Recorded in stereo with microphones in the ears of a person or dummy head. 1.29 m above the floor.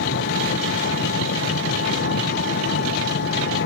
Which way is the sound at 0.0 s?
60° left (ahead or behind).